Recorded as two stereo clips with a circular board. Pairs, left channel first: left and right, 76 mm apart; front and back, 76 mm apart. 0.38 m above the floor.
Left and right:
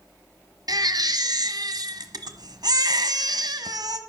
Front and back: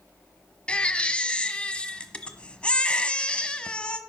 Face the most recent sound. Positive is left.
turn(degrees=-75)